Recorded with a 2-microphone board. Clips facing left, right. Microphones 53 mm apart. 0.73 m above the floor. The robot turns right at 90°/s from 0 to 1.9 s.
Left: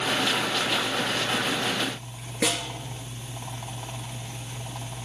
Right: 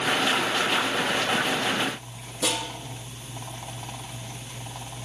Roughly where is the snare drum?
Left.